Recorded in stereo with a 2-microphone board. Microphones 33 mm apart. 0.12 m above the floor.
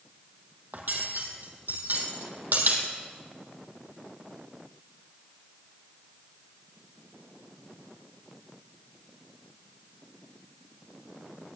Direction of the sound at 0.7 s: 60° right (ahead or behind).